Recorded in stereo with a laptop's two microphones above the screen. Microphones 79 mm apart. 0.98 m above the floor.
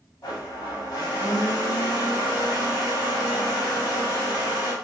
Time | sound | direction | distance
0.2 | a blender | 55° left (ahead or behind) | 1.6 m